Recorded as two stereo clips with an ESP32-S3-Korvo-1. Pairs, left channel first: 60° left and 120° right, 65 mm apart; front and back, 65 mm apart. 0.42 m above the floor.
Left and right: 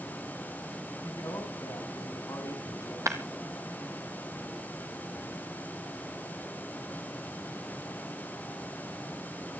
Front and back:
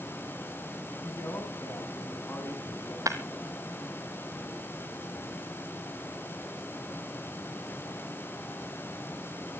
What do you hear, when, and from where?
1.0 s a man speaking: 40° left, 3.5 m
3.1 s breaking glass: 150° right, 1.4 m